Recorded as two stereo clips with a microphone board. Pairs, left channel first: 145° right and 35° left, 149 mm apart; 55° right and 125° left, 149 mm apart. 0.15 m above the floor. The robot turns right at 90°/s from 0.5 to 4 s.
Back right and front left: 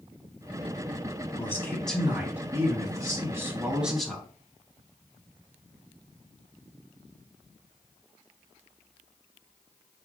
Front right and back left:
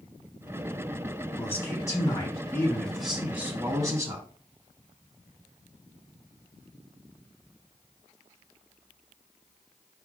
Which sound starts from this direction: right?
A man speaking, at 1.4 s.